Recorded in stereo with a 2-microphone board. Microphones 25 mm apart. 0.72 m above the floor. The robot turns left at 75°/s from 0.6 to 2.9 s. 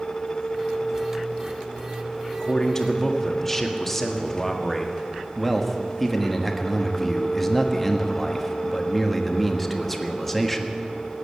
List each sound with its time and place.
2.4 s a man speaking: 55° left, 1.5 m; by 4.9 s 20° left, 1.5 m
5.4 s a man speaking: 10° left (ahead or behind), 1.3 m